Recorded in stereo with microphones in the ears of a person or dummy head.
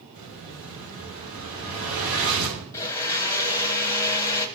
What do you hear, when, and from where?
0.1 s an explosion: 50° right (ahead or behind), 5.5 m
2.7 s a blender: 20° left (ahead or behind), 0.8 m